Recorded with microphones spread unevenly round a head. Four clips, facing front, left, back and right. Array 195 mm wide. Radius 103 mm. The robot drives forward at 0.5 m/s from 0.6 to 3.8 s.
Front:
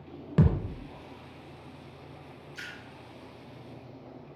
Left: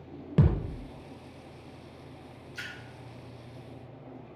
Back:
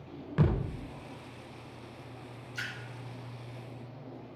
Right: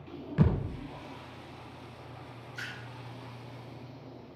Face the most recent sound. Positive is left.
turn(degrees=120)